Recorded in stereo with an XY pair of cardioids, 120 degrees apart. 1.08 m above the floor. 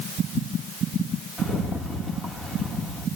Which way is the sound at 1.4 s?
30° left.